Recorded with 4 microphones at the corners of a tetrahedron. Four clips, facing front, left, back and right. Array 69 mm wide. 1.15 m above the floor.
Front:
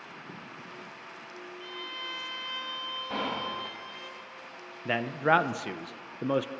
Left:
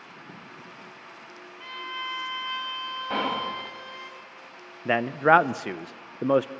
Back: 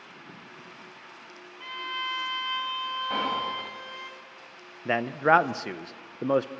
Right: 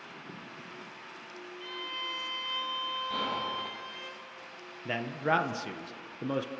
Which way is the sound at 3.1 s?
95° left.